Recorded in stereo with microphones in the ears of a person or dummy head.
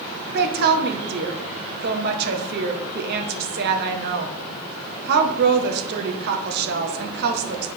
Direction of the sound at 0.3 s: 55° right (ahead or behind).